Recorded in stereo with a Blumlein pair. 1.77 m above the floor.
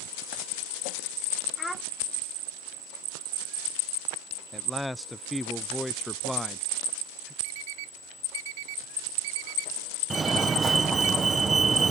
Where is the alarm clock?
50° right.